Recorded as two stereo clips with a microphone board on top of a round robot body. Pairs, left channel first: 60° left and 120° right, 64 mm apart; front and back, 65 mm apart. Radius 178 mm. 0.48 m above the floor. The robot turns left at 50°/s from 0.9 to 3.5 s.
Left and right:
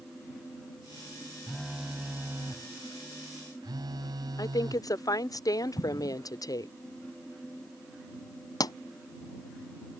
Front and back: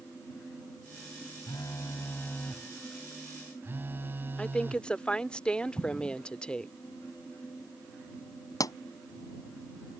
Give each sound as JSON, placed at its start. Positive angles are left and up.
{"t": 1.5, "sound": "a phone buzzing", "azimuth_deg": -20}
{"t": 4.4, "sound": "a woman speaking", "azimuth_deg": 75}
{"t": 5.8, "sound": "an explosion", "azimuth_deg": 70}
{"t": 8.6, "sound": "a pop", "azimuth_deg": 35}